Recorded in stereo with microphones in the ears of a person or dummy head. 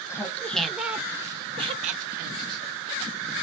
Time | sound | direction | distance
0.1 | laughter | 20° left (ahead or behind) | 1.1 m